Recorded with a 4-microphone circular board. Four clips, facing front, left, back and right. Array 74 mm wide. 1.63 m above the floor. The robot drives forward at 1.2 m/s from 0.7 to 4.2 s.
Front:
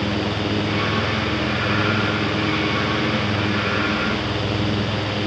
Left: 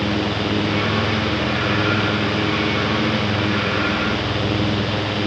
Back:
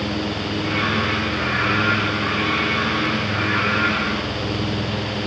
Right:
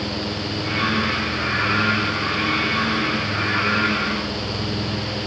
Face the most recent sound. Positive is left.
No sound to turn to.